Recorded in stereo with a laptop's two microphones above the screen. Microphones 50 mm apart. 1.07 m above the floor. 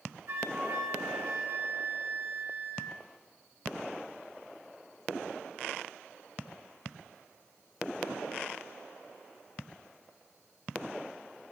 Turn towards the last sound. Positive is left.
turn(degrees=-80)